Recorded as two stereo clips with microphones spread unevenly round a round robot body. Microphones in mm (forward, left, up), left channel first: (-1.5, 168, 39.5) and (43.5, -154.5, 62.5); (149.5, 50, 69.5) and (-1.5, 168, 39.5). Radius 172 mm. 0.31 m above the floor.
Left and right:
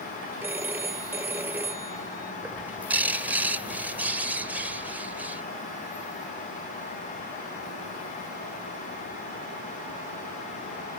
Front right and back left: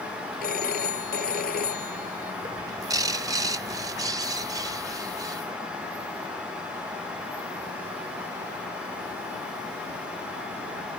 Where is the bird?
170° right.